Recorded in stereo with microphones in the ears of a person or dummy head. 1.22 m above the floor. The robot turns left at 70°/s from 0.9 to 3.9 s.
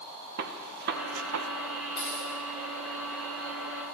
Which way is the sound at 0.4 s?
55° right (ahead or behind).